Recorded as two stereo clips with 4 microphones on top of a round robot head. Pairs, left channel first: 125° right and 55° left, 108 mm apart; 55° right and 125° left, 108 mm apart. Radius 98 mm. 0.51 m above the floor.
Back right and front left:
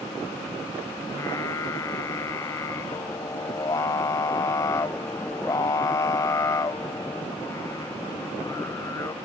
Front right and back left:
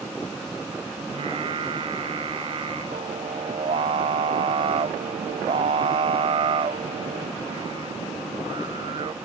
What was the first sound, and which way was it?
Singing, 170° left.